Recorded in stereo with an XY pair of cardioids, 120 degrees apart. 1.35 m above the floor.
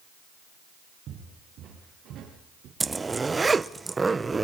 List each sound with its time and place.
1.1 s footsteps: 60° right, 8 m; by 2.7 s 70° right, 8 m
2.8 s a zipper: 20° right, 0.6 m